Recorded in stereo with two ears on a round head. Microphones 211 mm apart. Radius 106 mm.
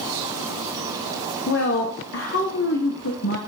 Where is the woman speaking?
55° left (ahead or behind), 1.0 m.